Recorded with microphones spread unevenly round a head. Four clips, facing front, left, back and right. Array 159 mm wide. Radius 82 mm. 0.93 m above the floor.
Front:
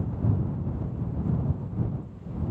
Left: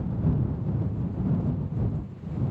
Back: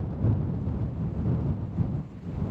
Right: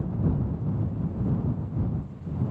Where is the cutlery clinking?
No cutlery clinking in this recording.